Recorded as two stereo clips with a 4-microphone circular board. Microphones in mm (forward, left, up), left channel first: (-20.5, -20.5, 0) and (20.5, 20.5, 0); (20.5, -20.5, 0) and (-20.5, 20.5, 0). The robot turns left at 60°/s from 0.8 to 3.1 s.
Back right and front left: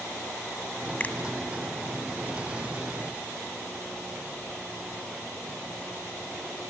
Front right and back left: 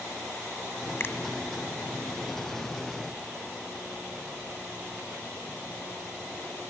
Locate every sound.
1.0 s a finger snap: 75° right, 1.5 m; by 1.1 s 85° right, 1.5 m